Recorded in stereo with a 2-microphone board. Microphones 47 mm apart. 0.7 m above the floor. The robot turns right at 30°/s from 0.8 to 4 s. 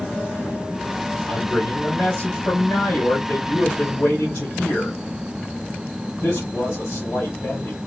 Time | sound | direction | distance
1.3 | a man speaking | 20° left | 3.5 m